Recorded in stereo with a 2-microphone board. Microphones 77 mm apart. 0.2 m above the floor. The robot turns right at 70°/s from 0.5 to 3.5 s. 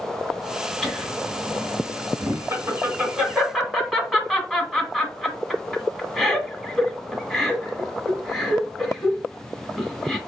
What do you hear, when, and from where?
0.8 s laughter: 5° left (ahead or behind), 1.6 m; by 10.2 s centre (ahead or behind), 1.6 m